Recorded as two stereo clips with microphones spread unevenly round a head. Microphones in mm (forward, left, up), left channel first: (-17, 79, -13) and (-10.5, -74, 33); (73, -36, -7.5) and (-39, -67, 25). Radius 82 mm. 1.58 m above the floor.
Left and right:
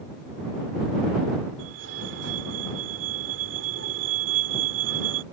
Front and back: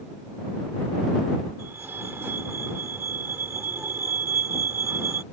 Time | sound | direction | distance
1.6 | a fire alarm | 95° right | ?